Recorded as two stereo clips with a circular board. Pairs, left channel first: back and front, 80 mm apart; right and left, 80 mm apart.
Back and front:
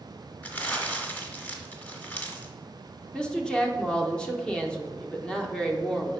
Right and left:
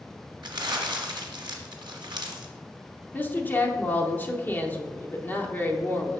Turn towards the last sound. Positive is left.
turn(degrees=-115)